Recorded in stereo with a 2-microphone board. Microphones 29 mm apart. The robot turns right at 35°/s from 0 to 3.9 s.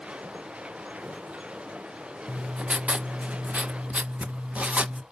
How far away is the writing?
About 0.5 m.